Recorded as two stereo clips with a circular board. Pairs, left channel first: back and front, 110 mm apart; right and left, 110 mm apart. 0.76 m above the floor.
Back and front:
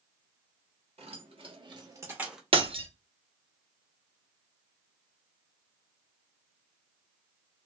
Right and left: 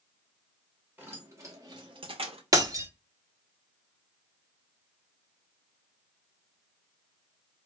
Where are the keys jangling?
20° left, 1.0 m; by 2.4 s 85° left, 0.6 m.